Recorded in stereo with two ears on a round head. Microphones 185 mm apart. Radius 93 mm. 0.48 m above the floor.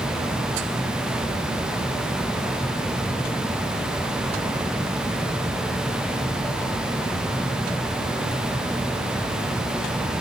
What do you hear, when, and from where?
Only background noise.